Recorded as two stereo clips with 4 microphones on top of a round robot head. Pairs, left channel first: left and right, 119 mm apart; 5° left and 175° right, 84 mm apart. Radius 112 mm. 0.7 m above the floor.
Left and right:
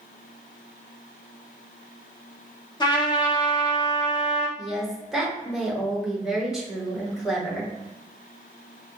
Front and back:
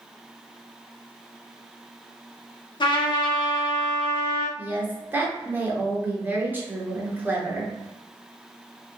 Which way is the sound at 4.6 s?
170° right.